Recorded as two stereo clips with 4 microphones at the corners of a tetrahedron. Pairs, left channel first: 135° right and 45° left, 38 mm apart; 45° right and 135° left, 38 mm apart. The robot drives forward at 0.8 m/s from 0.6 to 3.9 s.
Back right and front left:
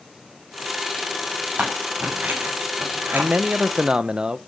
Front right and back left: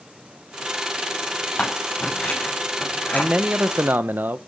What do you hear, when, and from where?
1.6 s scissors: 5° left, 9.5 m
3.1 s a man speaking: 75° left, 1.0 m; by 4.4 s 110° left, 1.1 m